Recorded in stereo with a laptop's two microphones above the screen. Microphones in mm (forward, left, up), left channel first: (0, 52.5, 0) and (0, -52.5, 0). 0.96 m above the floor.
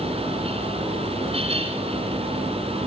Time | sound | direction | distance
0.0 | a fan | 70° right (ahead or behind) | 3 m